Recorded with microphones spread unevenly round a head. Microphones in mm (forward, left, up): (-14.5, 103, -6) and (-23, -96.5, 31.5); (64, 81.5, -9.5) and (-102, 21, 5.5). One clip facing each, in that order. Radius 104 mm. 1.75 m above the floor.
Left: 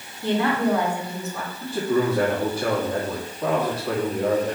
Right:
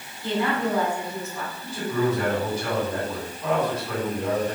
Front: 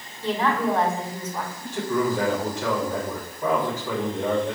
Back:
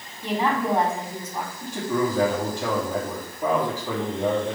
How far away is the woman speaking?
About 4.5 m.